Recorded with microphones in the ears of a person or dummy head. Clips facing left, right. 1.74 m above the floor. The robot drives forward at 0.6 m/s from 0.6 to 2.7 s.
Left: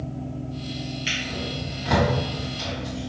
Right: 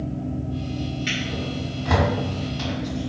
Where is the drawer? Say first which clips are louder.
Right 3 dB; centre (ahead or behind), 1.4 m.